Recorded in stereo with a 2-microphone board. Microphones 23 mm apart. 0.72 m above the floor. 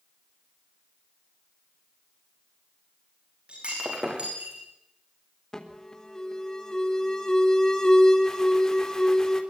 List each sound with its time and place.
3.5 s breaking glass: 50° right (ahead or behind), 8.5 m
5.5 s an alarm: 30° left (ahead or behind), 3.5 m